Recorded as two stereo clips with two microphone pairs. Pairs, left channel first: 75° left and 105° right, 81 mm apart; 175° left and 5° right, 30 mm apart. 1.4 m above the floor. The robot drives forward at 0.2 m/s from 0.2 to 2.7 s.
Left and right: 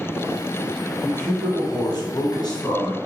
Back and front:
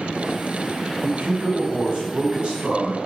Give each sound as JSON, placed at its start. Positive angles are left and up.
{"t": 1.0, "sound": "a man speaking", "azimuth_deg": 35, "distance_m": 1.2}